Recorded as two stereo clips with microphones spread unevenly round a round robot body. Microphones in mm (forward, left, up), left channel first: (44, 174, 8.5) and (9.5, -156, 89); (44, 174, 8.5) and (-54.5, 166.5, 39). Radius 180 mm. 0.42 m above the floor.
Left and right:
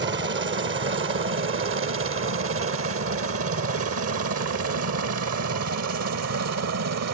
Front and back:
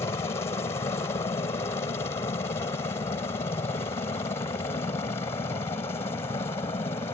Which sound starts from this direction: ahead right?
A helicopter, at 0.0 s.